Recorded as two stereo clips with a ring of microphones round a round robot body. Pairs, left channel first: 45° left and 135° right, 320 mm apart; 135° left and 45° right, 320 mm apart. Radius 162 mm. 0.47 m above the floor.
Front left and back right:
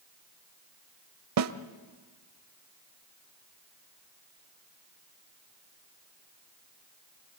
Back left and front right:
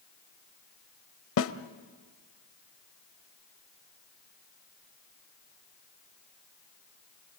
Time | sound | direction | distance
1.4 | a snare drum | 175° right | 0.8 m